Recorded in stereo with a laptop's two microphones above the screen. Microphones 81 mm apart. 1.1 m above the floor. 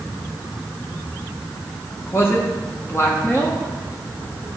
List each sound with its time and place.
2.1 s a man speaking: 30° left (ahead or behind), 1.1 m